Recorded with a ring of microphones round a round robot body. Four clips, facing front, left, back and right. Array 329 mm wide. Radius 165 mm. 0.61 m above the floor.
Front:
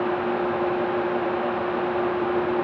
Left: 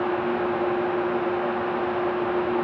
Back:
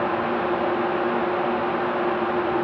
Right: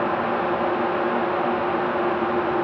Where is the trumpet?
No trumpet in this recording.